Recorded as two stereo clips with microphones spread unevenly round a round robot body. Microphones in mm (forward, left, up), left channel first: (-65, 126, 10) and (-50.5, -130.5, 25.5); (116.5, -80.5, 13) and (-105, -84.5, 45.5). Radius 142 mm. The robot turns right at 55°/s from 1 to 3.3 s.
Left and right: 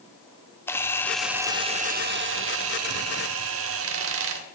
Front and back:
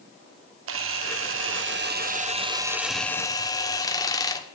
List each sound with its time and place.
0.7 s a camera shutter: 170° left, 1.5 m; by 4.5 s 65° right, 1.5 m